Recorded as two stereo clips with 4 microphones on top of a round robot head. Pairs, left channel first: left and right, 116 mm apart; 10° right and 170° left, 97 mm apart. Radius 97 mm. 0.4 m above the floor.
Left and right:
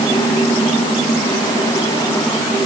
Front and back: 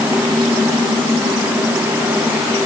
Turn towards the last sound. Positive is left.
No sound to turn to.